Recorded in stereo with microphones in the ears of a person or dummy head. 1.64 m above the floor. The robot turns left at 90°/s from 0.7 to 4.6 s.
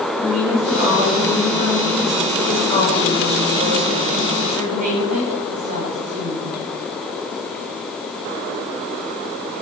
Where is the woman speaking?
145° right, 7.5 m; by 6.6 s 135° right, 7.5 m.